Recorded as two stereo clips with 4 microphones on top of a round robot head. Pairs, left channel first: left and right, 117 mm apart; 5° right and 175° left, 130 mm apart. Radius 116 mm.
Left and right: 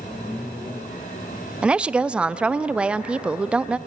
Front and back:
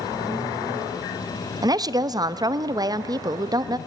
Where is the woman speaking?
165° right, 0.6 m.